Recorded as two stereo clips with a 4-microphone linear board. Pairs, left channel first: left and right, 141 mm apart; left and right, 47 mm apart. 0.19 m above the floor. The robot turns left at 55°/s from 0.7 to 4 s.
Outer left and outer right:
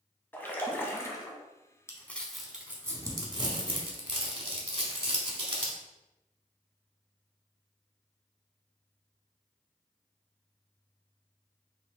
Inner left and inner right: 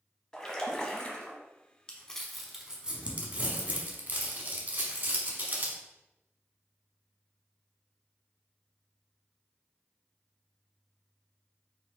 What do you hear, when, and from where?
0.3 s a splash: 15° left (ahead or behind), 0.8 m; by 1.4 s 25° left (ahead or behind), 0.8 m
1.9 s crumpling: 20° left (ahead or behind), 0.9 m; by 5.8 s 45° right (ahead or behind), 0.9 m